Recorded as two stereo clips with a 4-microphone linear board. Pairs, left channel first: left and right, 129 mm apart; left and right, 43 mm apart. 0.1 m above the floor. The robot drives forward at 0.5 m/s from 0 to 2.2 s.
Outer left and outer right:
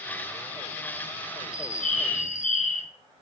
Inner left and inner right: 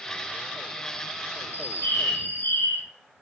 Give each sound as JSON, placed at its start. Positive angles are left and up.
{"t": 1.5, "sound": "a bird", "side_deg": 70, "distance_m": 1.8}